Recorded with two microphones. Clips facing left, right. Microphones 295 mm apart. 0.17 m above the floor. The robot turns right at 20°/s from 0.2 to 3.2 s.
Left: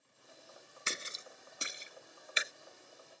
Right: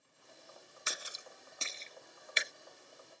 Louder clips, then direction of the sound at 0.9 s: Left 3 dB; 30° left (ahead or behind).